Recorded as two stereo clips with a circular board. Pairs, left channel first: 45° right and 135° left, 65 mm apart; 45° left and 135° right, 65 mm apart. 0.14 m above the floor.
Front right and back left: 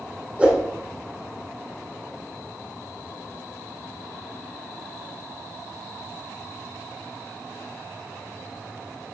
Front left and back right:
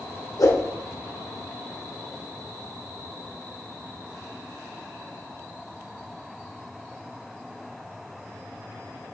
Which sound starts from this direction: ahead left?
A whoosh, at 0.4 s.